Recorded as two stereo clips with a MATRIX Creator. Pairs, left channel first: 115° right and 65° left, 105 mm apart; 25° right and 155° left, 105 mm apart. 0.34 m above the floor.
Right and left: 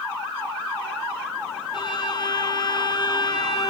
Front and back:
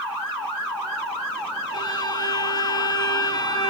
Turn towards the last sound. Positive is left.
turn(degrees=-70)